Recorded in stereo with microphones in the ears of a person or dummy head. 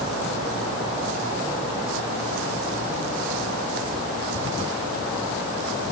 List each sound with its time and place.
Only background noise.